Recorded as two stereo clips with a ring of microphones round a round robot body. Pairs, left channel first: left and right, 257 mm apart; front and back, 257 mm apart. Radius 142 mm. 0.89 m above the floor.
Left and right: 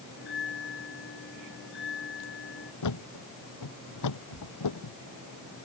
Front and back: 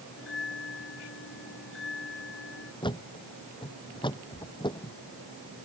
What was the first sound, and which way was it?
A bell, 45° left.